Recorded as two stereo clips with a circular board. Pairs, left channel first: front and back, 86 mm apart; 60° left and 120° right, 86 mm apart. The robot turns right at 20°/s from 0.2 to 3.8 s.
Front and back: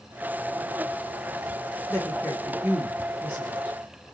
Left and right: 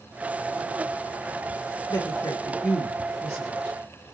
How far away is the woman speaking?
About 0.9 m.